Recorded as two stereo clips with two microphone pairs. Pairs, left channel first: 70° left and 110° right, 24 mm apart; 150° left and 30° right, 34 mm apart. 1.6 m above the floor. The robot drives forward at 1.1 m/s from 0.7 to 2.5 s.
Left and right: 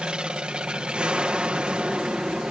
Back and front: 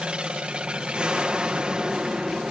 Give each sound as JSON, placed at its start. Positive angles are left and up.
{"t": 0.0, "sound": "an aircraft", "azimuth_deg": -80}